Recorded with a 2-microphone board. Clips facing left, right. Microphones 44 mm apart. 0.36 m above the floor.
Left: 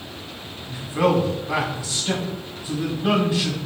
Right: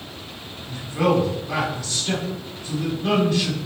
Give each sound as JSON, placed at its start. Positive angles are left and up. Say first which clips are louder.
{"t": 0.7, "sound": "a man speaking", "louder": "even", "side_deg": 15, "distance_m": 3.0}